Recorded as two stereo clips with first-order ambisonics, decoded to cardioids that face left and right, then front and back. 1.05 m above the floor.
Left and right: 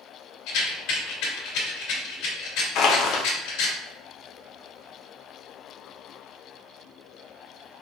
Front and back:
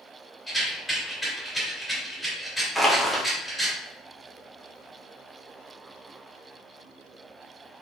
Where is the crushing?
90° left, 0.8 m.